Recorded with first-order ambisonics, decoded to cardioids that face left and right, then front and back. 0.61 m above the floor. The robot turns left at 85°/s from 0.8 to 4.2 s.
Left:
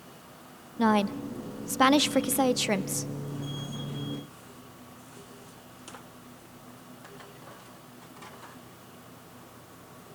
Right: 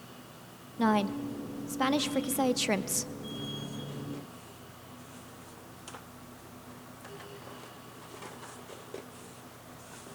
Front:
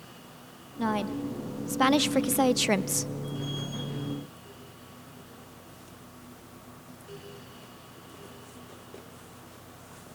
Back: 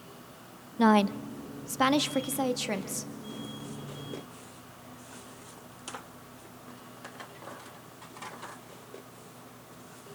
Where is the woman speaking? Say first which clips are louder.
Left 3 dB, back 6 dB; 165° left, 0.6 m; by 3.1 s 30° right, 0.6 m.